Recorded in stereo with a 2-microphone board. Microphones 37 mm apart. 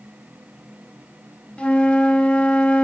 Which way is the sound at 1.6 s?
25° left (ahead or behind).